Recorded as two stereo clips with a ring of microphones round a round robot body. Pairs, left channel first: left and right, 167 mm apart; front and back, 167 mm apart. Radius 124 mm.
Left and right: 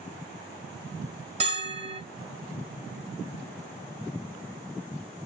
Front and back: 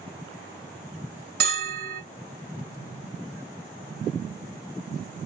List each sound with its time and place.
1.4 s a bell: 145° right, 1.7 m